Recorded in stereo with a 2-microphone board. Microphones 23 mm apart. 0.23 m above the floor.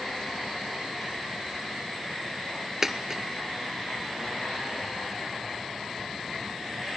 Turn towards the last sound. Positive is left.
turn(degrees=-20)  # may be behind; listen again after turning